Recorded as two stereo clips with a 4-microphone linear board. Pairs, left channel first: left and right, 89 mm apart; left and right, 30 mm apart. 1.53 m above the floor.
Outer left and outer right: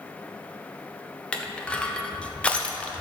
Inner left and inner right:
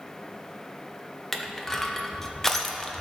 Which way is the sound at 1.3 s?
15° left (ahead or behind).